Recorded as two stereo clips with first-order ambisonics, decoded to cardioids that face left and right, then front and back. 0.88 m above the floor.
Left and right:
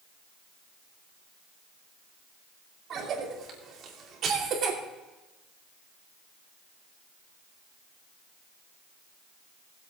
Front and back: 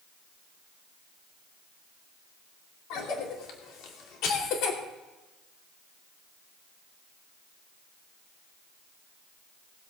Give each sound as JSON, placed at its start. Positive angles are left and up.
{"t": 2.9, "sound": "a cough", "azimuth_deg": -35, "distance_m": 2.5}